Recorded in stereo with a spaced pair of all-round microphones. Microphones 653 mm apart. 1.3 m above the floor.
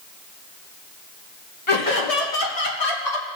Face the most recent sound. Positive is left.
turn(degrees=80)